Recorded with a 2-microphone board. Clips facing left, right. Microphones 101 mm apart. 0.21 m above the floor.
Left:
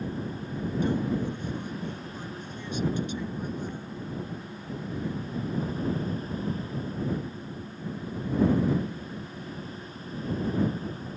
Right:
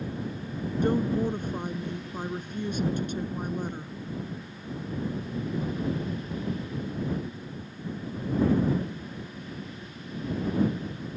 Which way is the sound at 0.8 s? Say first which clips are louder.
Right 4 dB; 50° right (ahead or behind).